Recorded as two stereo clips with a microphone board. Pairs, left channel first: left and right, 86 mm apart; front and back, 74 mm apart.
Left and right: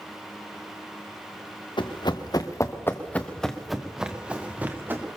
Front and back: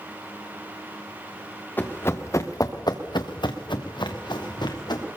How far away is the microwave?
I don't hear a microwave.